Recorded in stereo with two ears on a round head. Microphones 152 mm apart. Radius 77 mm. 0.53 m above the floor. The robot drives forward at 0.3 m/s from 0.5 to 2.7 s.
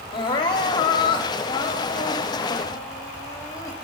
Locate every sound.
0.1 s crying: 25° left (ahead or behind), 0.9 m; by 3.8 s 20° left (ahead or behind), 1.0 m